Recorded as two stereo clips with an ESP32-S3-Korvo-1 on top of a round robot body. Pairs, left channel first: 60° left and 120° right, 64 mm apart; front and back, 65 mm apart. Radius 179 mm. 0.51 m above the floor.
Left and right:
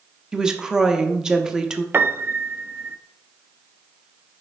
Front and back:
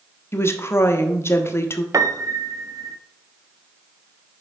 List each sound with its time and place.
0.3 s a woman speaking: 45° right, 1.1 m
1.9 s a piano: 170° right, 0.7 m